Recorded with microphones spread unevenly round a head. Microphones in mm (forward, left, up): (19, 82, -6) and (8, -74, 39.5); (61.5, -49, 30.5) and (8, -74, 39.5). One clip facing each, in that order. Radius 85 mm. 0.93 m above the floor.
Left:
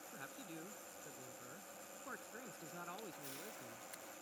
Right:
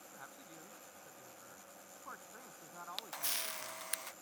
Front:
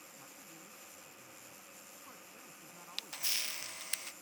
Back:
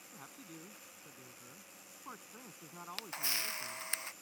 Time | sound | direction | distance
0.1 | a man speaking | 150° left | ?
3.0 | a camera shutter | 95° right | ?